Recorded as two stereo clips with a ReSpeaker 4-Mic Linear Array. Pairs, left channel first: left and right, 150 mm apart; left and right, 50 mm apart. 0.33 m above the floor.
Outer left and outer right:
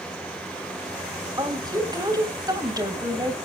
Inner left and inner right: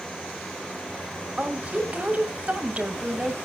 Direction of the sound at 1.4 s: 25° right (ahead or behind).